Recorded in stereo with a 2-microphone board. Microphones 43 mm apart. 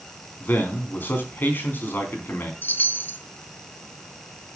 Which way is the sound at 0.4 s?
50° left (ahead or behind).